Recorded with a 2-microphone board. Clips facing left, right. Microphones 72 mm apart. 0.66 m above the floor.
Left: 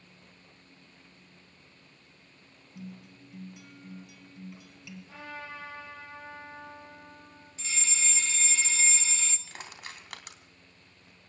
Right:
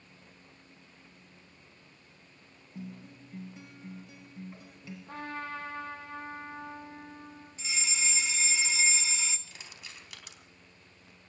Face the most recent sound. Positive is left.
turn(degrees=60)  # may be behind; listen again after turning